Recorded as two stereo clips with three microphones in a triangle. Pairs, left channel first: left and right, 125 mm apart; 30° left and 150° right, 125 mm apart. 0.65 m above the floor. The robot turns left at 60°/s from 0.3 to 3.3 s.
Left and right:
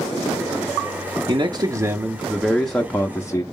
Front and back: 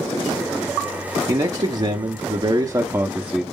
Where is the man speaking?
105° right, 0.7 m; by 3.4 s 135° left, 0.7 m.